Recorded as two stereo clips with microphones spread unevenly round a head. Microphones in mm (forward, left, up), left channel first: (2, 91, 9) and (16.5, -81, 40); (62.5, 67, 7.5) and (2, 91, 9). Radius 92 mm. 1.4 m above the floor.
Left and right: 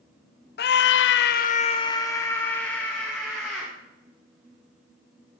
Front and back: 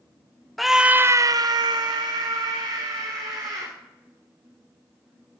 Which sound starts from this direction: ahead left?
A scream, at 0.6 s.